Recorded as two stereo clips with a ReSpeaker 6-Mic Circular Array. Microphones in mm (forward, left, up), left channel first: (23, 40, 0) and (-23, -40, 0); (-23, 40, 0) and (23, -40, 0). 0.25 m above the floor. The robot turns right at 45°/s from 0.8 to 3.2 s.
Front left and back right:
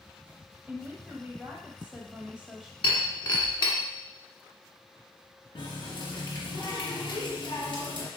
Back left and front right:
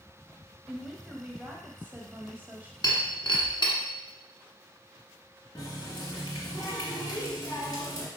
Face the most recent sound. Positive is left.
turn(degrees=75)